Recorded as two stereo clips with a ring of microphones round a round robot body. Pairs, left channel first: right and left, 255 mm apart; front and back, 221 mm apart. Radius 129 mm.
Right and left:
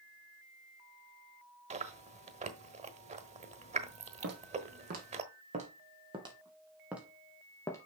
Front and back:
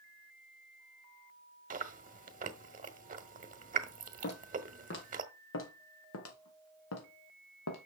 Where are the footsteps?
40° left, 4 m; by 7.9 s 15° right, 2.5 m.